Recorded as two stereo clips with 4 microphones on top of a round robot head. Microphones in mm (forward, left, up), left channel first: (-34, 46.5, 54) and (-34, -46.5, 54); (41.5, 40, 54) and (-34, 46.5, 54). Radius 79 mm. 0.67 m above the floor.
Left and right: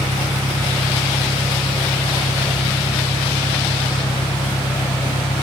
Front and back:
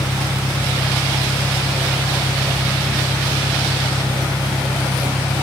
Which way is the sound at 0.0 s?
50° left.